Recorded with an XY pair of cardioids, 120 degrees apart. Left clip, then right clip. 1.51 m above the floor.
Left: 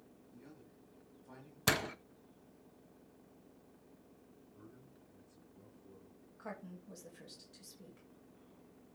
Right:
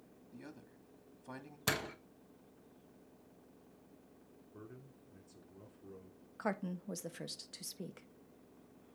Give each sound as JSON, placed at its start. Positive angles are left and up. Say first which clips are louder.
{"t": 0.3, "sound": "a man speaking", "louder": "right 5 dB", "azimuth_deg": -60, "distance_m": 2.5}
{"t": 1.7, "sound": "a door slam", "louder": "left 3 dB", "azimuth_deg": 25, "distance_m": 0.7}
{"t": 4.5, "sound": "a man speaking", "louder": "right 6 dB", "azimuth_deg": -70, "distance_m": 3.5}
{"t": 6.4, "sound": "a woman speaking", "louder": "right 9 dB", "azimuth_deg": -65, "distance_m": 1.3}